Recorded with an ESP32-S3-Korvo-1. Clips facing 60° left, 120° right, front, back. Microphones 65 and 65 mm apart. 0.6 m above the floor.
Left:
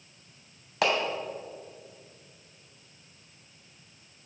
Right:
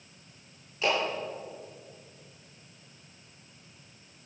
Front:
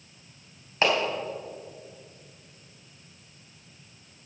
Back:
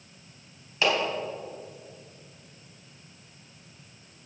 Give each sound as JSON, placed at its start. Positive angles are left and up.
{"t": 0.8, "sound": "a clap", "azimuth_deg": 55, "distance_m": 3.0}